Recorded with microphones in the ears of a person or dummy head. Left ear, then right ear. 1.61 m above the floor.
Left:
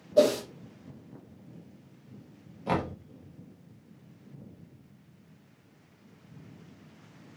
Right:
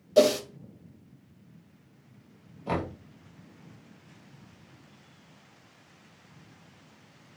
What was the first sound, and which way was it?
A whoosh, 75° right (ahead or behind).